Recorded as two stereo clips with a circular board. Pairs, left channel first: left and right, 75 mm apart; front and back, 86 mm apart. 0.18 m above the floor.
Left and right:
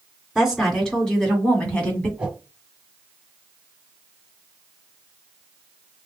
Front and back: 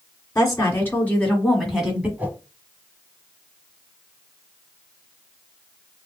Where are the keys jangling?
I don't hear keys jangling.